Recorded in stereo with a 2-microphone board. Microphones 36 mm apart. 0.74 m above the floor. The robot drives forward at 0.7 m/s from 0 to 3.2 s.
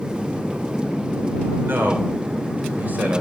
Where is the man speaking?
70° right (ahead or behind), 2 m; by 3.2 s 45° right (ahead or behind), 2.5 m.